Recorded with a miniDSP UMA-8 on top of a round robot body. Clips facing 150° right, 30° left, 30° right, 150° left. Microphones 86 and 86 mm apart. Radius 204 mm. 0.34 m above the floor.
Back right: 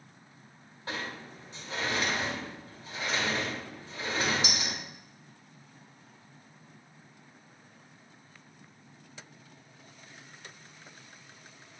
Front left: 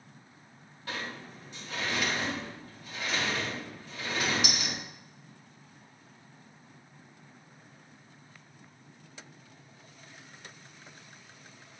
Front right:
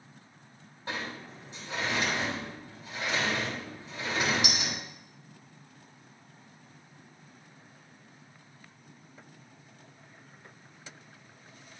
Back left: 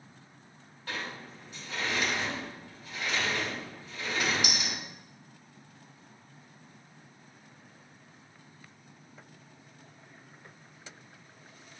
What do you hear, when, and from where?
0.9 s a sliding door: 95° right, 3 m